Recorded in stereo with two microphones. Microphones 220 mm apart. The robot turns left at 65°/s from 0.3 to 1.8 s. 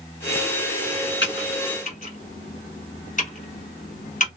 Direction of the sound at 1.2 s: 55° left (ahead or behind).